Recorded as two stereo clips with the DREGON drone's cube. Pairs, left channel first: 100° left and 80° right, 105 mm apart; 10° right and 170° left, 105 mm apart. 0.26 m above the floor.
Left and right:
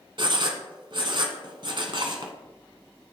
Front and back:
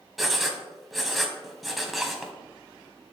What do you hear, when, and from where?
0.2 s writing: 100° right, 1.2 m